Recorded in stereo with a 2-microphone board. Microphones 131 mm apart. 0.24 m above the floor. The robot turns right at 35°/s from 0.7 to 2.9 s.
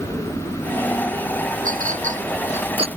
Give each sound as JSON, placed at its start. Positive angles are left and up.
{"t": 1.6, "sound": "a clink", "side_deg": -85}